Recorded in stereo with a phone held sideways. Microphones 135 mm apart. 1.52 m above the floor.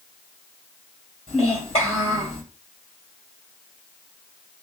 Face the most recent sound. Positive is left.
turn(degrees=45)  # may be behind; listen again after turning